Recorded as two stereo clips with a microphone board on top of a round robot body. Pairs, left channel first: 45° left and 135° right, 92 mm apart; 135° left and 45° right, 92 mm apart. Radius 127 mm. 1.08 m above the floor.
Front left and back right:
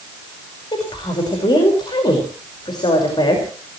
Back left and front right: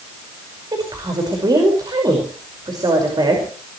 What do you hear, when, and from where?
0.7 s a woman speaking: 5° left, 5.5 m